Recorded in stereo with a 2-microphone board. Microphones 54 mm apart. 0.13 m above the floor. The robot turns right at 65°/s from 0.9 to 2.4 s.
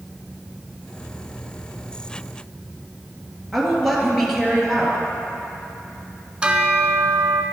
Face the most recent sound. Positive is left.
turn(degrees=-20)  # may be behind; listen again after turning